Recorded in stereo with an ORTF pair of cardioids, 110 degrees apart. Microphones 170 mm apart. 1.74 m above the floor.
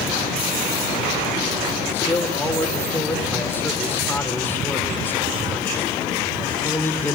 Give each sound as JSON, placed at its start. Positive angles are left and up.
{"t": 1.9, "sound": "a man speaking", "azimuth_deg": 10, "distance_m": 4.5}